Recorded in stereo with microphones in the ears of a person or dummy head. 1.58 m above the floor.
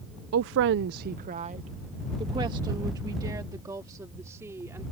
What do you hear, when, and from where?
0.3 s a woman speaking: 60° right (ahead or behind); by 4.8 s 15° right (ahead or behind)